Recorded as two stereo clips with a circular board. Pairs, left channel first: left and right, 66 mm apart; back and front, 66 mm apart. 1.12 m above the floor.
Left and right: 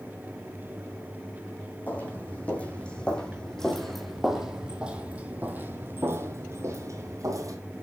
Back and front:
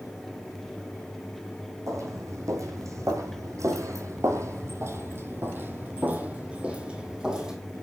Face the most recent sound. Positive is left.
turn(degrees=-80)